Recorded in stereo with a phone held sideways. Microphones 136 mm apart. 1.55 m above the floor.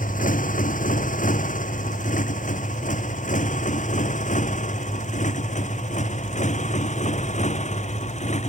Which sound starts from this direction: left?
A motorcycle, at 0.0 s.